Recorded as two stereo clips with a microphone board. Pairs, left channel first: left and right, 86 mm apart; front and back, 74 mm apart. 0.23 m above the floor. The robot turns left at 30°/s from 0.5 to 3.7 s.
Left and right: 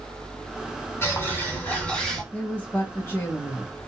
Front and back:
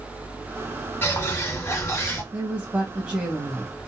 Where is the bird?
45° left, 1.9 m; by 2.2 s 10° left, 1.9 m.